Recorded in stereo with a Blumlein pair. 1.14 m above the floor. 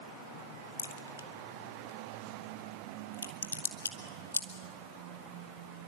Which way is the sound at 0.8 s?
70° left.